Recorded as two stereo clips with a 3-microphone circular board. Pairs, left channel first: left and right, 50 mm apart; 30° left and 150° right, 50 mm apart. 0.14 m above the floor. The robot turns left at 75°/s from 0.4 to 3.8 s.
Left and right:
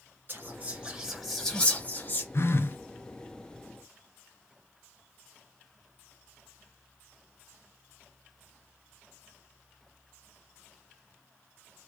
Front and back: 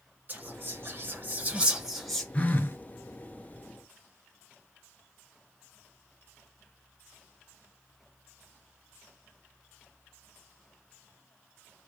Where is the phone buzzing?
85° left, 0.6 m; by 2.8 s 55° left, 0.6 m.